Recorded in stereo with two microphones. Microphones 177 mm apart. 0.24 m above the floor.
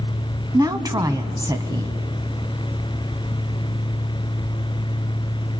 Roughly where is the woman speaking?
Right.